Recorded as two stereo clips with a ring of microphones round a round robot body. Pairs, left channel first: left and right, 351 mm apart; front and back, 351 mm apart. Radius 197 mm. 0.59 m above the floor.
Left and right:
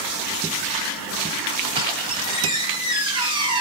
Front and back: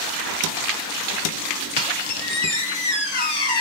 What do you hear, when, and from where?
1.8 s a squeak: 10° right, 1.5 m